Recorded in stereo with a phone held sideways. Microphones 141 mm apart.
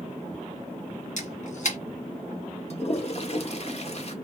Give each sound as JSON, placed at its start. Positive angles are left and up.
{"t": 1.2, "sound": "a camera shutter", "side_deg": 60, "distance_m": 2.0}
{"t": 2.7, "sound": "a toilet flushing", "side_deg": 50, "distance_m": 1.1}